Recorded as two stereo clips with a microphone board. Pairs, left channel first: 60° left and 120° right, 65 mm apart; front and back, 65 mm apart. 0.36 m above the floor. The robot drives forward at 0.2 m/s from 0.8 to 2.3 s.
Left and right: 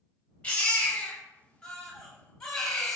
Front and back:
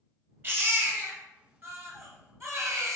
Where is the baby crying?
125° left, 0.8 m; by 3.0 s 140° left, 1.0 m.